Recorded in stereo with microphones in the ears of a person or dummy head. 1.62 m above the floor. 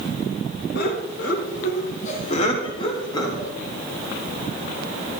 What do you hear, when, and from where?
0.8 s laughter: 65° left (ahead or behind), 4.5 m; by 3.5 s 20° left (ahead or behind), 4 m